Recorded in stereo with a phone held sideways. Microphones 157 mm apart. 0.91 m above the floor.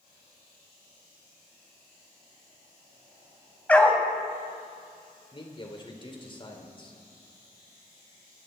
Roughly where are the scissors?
No scissors in this recording.